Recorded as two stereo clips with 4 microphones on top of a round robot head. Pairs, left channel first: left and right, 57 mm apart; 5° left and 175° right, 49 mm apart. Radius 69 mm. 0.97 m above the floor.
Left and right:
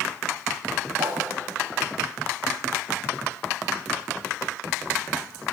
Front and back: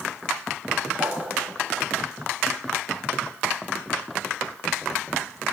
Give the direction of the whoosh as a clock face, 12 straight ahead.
3 o'clock.